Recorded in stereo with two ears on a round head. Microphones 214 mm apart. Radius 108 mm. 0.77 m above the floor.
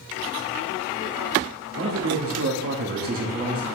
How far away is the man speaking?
About 1.4 m.